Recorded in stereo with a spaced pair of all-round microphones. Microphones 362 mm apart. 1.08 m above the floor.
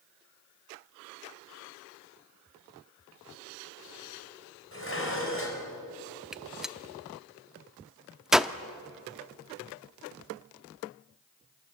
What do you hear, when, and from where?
4.7 s dishes clattering: 35° left (ahead or behind), 4 m
6.3 s a gunshot: centre (ahead or behind), 0.6 m